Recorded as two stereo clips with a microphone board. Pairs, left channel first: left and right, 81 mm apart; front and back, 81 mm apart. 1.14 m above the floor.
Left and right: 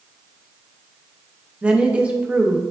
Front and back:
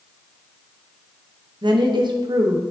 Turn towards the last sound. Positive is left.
turn(degrees=-165)